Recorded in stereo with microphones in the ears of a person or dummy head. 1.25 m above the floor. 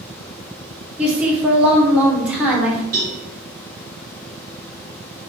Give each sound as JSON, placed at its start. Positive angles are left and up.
{"t": 1.0, "sound": "a woman speaking", "side_deg": -5, "distance_m": 0.8}
{"t": 2.9, "sound": "a cowbell", "side_deg": -45, "distance_m": 1.5}